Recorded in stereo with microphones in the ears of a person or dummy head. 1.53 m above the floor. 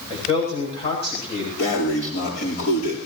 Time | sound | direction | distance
0.1 | a man speaking | 30° left (ahead or behind) | 8.5 m
1.6 | breathing | 50° left (ahead or behind) | 9 m